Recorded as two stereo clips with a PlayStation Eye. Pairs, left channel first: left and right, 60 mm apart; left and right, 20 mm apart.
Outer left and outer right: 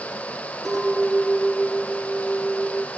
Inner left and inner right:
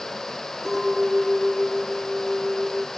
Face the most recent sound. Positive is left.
turn(degrees=5)  # may be behind; listen again after turning